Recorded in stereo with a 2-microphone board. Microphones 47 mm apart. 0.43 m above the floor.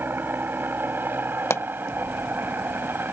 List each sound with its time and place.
0.0 s a helicopter: 45° right (ahead or behind)
1.5 s a pop: 70° left (ahead or behind)